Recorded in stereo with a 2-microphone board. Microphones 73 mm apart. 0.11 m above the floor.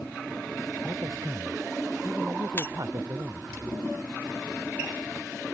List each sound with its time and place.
0.8 s a man speaking: 45° right (ahead or behind)
2.6 s breaking glass: 30° left (ahead or behind)